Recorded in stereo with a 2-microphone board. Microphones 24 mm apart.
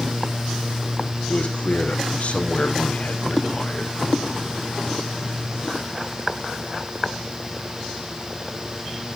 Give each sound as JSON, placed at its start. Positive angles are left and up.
{"t": 1.3, "sound": "a man speaking", "side_deg": 60, "distance_m": 5.5}